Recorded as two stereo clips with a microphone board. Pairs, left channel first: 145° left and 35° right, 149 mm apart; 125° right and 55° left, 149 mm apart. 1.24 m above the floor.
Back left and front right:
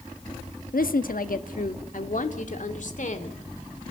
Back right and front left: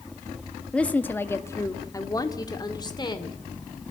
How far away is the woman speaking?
About 1.4 m.